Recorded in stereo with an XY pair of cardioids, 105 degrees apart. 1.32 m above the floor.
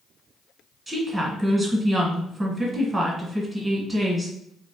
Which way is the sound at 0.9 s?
20° right.